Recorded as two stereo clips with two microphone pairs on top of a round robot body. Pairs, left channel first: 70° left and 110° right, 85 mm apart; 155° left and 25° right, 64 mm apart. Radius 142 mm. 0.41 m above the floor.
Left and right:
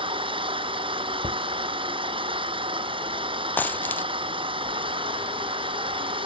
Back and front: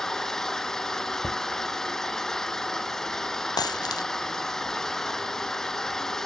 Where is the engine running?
120° right.